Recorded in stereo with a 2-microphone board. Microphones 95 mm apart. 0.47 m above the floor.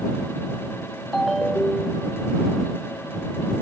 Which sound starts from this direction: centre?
A ringtone, at 1.1 s.